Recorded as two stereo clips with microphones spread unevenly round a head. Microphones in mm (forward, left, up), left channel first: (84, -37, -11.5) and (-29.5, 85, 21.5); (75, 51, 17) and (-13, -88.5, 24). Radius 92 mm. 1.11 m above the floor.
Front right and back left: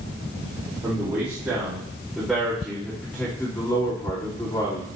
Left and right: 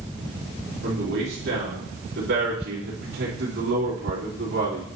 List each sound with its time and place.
0.8 s a man speaking: 155° right, 4 m; by 4.9 s 115° right, 3 m